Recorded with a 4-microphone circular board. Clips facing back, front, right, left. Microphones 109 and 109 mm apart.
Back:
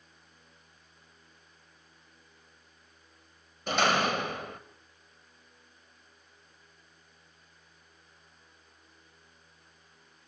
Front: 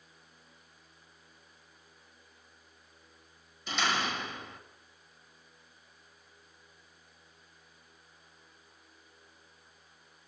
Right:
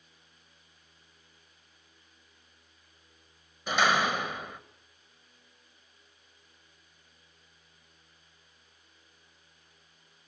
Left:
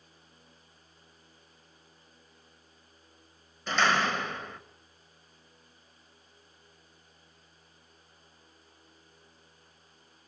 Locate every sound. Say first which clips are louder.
3.7 s a door slam: back 6 dB, right 1 dB; 165° right, 1.6 m